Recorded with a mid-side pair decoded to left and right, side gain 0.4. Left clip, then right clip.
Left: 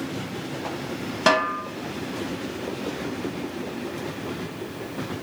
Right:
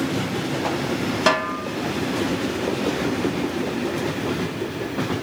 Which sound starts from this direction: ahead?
A snare drum, at 1.3 s.